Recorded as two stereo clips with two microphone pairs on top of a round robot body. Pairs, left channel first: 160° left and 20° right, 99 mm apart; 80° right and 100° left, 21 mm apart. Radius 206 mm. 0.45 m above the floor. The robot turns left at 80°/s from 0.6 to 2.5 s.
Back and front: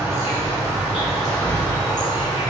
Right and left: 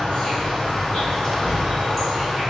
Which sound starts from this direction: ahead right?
An insect, at 0.0 s.